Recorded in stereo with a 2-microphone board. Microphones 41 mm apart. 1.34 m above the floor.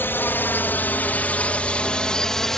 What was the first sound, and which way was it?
A drone, 65° left (ahead or behind).